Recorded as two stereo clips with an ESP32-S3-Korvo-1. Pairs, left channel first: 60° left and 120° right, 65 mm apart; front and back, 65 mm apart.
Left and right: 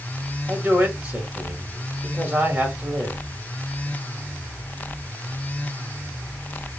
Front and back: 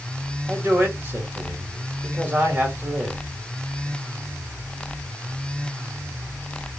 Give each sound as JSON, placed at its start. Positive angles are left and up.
{"t": 0.5, "sound": "a man speaking", "azimuth_deg": -160, "distance_m": 1.2}